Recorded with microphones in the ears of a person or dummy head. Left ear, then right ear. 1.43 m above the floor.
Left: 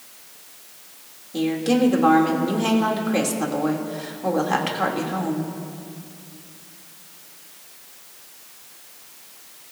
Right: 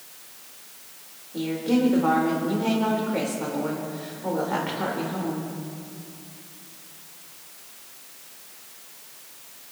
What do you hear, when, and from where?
1.3 s a woman speaking: 80° left, 3 m